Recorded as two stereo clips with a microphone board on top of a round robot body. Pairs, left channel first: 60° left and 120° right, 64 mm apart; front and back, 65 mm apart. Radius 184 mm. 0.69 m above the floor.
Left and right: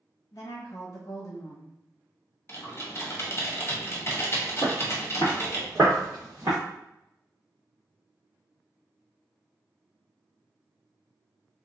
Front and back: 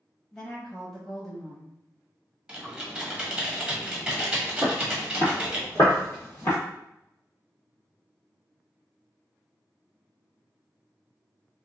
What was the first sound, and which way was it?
A woman speaking, 90° left.